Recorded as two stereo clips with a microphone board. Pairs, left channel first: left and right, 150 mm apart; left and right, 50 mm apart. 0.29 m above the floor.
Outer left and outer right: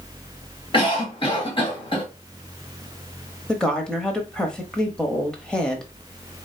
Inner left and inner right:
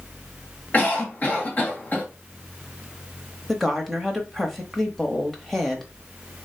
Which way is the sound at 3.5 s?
5° left (ahead or behind).